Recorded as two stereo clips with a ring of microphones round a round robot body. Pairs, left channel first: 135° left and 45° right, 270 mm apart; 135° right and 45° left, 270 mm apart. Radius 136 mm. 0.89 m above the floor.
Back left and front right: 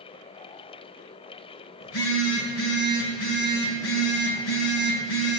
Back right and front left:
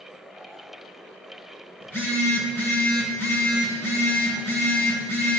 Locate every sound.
1.8 s a phone buzzing: 145° left, 4 m